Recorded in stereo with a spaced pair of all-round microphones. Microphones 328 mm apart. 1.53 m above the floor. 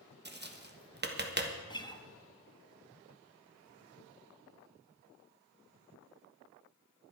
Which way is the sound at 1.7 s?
15° left (ahead or behind).